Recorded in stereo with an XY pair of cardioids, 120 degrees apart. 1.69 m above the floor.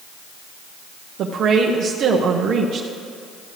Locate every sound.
1.2 s a woman speaking: 60° right, 0.9 m